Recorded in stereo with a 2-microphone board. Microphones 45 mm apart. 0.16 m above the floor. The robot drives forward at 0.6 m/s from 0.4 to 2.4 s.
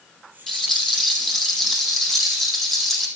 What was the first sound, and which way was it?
A rattle, 5° left (ahead or behind).